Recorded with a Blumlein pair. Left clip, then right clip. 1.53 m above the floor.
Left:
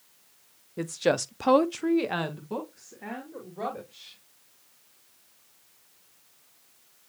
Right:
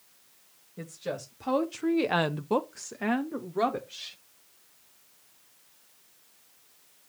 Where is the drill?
I don't hear a drill.